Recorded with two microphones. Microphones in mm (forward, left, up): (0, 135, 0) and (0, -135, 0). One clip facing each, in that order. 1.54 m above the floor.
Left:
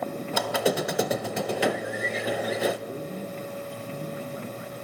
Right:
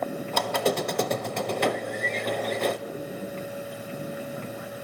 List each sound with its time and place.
0.3 s a squeak: 5° left (ahead or behind), 0.7 m
2.9 s a man speaking: 30° left (ahead or behind), 2 m